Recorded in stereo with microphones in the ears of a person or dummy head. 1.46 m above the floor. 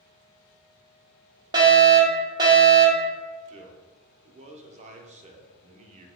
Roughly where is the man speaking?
Right.